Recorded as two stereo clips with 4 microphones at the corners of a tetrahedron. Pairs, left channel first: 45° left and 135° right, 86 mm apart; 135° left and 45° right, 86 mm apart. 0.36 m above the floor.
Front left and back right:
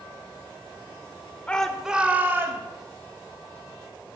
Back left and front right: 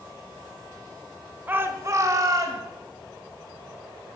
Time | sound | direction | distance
1.5 | a shout | 15° right | 0.9 m